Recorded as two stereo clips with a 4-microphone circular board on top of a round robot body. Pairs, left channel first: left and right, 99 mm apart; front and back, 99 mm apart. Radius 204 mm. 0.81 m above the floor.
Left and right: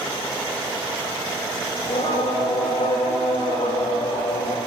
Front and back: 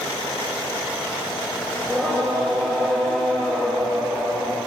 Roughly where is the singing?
Left.